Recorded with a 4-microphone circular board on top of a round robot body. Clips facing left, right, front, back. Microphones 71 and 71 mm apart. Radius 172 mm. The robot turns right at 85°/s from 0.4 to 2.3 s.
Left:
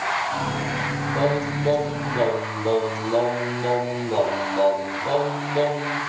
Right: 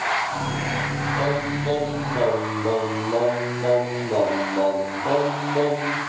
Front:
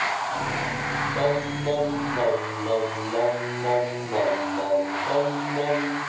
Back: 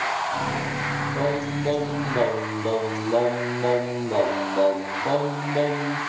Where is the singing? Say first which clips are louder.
Left 2 dB, front 1 dB; 95° left, 9 m; by 6.0 s 165° right, 9 m.